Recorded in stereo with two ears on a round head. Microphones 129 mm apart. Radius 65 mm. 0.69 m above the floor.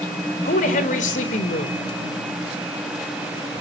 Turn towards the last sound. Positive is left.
turn(degrees=60)  # may be behind; listen again after turning